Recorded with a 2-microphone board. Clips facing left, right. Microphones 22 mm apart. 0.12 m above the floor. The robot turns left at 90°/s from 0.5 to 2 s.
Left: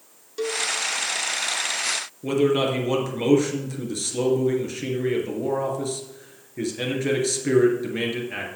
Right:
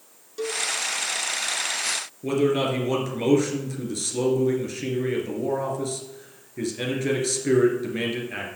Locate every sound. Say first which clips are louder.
0.4 s a cowbell: left 2 dB; 20° left (ahead or behind), 0.8 m; by 0.6 s 25° left (ahead or behind), 0.8 m
2.2 s a man speaking: left 1 dB; 5° left (ahead or behind), 2.5 m